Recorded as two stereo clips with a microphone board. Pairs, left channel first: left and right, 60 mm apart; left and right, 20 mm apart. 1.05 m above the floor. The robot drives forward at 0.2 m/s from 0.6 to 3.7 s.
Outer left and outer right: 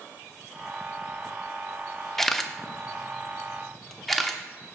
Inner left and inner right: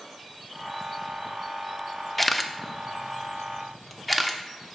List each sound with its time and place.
2.2 s a camera shutter: 5° left (ahead or behind), 0.5 m